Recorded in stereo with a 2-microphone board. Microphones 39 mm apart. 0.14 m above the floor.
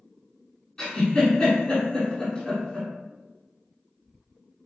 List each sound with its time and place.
0.8 s a giggle: 10° left (ahead or behind), 1.7 m